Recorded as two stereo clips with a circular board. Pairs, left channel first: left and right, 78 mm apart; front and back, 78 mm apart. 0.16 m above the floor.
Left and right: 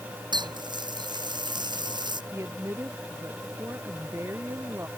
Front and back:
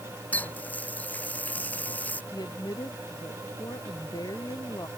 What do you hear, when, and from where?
0.3 s a running tap: 70° right
2.3 s a woman speaking: 35° right